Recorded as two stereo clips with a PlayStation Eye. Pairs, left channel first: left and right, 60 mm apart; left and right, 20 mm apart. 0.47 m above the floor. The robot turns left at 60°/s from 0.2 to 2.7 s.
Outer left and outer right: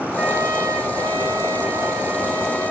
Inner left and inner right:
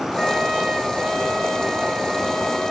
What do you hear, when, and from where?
0.2 s a trumpet: 25° right, 5.5 m; by 2.7 s 175° right, 5.5 m